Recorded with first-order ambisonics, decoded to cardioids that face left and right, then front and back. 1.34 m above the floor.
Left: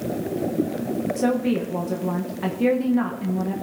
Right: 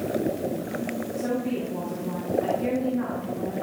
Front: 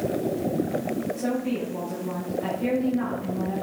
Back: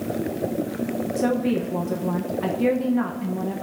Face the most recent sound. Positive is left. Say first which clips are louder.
# left 5 dB, back 5 dB
turn(degrees=130)